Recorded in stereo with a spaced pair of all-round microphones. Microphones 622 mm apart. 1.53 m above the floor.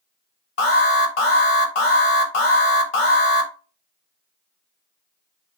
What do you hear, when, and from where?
0.6 s an alarm: 55° left (ahead or behind), 1.1 m